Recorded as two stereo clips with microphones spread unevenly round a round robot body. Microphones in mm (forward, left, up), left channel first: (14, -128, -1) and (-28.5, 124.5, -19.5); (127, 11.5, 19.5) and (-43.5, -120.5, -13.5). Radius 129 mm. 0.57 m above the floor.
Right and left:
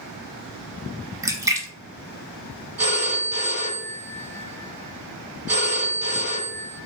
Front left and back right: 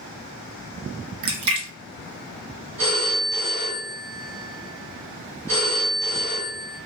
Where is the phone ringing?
160° left, 2 m.